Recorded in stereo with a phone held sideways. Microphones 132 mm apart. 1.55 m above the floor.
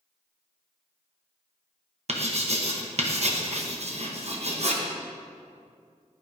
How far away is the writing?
About 1.1 m.